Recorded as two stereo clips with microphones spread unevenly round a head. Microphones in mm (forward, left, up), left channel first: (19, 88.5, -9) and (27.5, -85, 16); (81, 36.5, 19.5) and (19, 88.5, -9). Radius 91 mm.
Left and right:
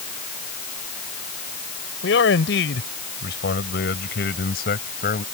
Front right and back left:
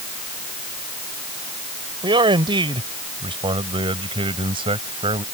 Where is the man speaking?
120° left; by 5.2 s 140° left.